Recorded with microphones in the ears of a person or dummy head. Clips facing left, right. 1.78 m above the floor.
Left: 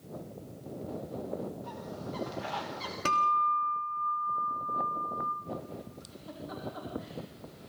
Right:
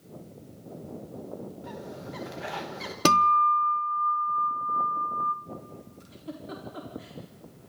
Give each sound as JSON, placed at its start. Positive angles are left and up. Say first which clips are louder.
{"t": 1.6, "sound": "a bird", "louder": "right 1 dB", "side_deg": -20, "distance_m": 1.2}
{"t": 3.0, "sound": "a guitar", "louder": "right 8 dB", "side_deg": -65, "distance_m": 0.9}
{"t": 6.0, "sound": "a giggle", "louder": "right 3 dB", "side_deg": -40, "distance_m": 4.5}